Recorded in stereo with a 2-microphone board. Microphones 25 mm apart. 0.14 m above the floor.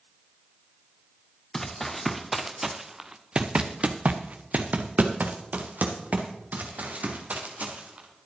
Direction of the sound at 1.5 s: 15° left (ahead or behind).